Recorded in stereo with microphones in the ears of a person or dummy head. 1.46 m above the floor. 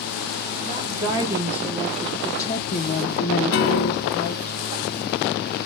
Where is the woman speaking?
25° right (ahead or behind), 1.6 m; by 4.5 s 85° left, 1.5 m.